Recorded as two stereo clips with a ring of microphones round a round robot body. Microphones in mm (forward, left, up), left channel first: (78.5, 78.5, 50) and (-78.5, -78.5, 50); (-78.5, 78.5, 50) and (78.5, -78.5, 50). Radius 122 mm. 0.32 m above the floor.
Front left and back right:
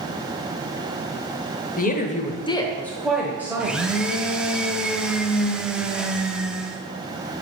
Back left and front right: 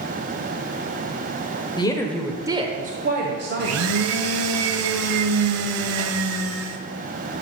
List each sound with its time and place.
1.8 s a woman speaking: 75° left, 1.2 m; by 3.9 s 60° right, 1.7 m
3.6 s a blender: 50° right, 0.7 m